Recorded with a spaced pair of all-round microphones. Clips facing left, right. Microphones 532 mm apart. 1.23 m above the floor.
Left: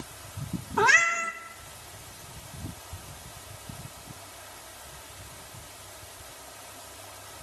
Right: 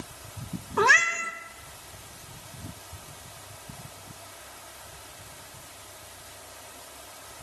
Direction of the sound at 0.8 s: 10° left (ahead or behind).